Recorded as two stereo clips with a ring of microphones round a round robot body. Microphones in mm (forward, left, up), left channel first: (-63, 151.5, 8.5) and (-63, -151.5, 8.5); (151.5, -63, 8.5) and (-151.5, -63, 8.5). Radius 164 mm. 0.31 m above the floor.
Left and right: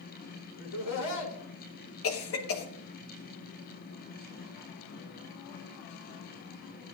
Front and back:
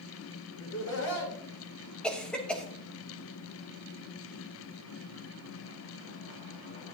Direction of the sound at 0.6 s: 45° left.